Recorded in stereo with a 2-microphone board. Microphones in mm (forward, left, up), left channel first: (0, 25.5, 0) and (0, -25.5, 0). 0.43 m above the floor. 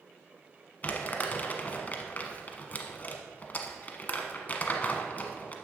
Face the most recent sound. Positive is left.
turn(degrees=35)  # may be behind; listen again after turning